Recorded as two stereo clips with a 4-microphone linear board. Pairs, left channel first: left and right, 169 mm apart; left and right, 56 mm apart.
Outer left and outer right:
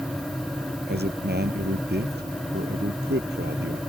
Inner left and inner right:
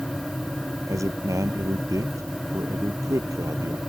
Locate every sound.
0.9 s a man speaking: 80° right; by 3.8 s 85° right